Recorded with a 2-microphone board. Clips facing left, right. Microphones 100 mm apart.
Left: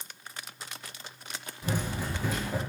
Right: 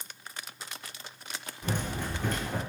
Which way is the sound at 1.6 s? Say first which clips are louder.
Left 1 dB; 5° left (ahead or behind).